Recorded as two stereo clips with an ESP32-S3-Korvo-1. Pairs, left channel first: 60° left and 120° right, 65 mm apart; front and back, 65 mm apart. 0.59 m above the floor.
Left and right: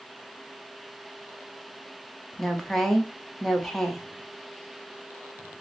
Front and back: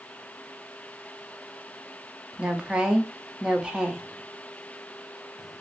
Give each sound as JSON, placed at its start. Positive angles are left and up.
{"t": 2.3, "sound": "a woman speaking", "azimuth_deg": 135, "distance_m": 0.6}